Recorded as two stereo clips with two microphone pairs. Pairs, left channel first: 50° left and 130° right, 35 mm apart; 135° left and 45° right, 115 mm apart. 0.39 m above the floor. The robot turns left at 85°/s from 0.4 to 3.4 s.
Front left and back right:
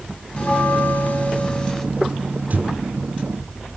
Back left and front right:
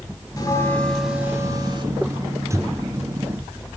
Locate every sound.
0.4 s a bell: 100° left, 1.7 m; by 1.9 s 25° right, 1.7 m